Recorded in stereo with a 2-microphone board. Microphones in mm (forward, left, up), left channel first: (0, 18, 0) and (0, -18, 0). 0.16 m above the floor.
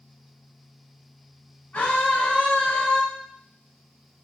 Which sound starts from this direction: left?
A scream, at 1.7 s.